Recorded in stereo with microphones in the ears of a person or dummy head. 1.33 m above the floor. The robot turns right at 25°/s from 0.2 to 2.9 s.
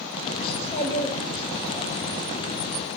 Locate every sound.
0.5 s a child speaking: 145° left, 5 m; by 1.9 s 175° right, 5 m